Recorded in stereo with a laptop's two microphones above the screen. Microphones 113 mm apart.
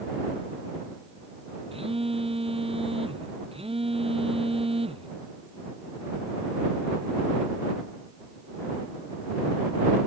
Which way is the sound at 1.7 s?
55° right (ahead or behind).